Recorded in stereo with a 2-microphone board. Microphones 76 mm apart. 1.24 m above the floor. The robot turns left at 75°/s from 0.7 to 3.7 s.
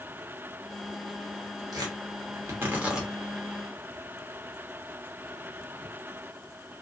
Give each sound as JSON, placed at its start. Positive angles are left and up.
{"t": 1.7, "sound": "tearing paper", "side_deg": -60, "distance_m": 1.0}